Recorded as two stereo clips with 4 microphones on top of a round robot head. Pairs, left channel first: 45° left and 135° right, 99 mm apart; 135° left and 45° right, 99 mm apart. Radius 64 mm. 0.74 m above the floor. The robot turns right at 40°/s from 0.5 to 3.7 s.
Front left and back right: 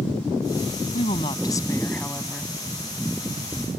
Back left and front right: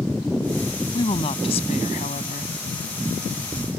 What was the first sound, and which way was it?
A woman speaking, 80° left.